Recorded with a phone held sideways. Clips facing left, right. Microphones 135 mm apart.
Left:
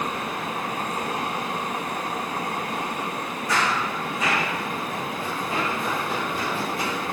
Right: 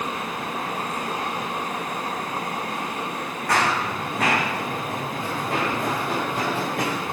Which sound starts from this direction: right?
Running footsteps, at 3.5 s.